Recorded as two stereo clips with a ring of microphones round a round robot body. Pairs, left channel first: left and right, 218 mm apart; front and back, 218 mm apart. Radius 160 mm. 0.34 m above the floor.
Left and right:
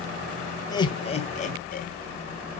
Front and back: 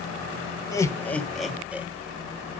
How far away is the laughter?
About 1.3 m.